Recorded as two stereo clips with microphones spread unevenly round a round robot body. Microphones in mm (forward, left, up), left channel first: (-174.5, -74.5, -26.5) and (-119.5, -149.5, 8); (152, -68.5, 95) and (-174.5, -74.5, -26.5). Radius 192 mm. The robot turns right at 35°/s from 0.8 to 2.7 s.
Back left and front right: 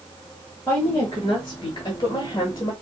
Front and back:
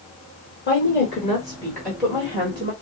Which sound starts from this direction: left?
A woman speaking, at 0.7 s.